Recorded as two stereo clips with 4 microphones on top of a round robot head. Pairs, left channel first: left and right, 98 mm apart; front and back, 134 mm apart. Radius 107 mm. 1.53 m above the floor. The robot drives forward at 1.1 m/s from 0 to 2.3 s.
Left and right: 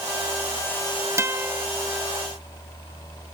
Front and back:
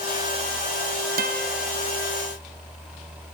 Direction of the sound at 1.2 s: 150° right.